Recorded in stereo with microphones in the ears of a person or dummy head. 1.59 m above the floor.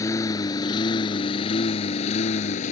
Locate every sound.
0.0 s a lawn mower: 20° left (ahead or behind); by 2.7 s 45° left (ahead or behind)